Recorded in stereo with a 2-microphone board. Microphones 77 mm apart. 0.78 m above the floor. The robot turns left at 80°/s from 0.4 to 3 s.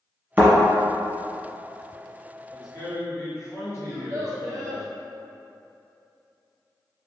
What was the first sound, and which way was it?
A thud, 25° right (ahead or behind).